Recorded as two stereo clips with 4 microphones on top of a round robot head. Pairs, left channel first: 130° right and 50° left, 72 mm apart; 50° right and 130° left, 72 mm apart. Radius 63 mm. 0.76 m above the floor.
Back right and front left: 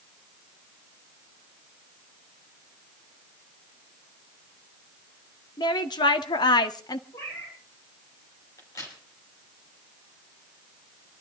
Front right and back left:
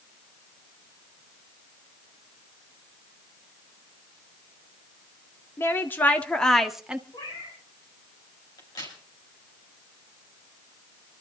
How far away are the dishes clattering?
I don't hear dishes clattering.